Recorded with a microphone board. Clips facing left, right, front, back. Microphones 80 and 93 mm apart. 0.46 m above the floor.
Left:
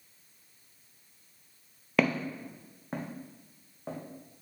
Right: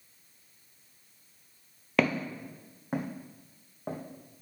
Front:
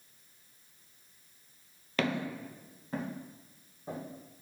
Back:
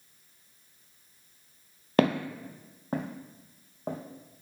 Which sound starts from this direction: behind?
Footsteps, at 2.0 s.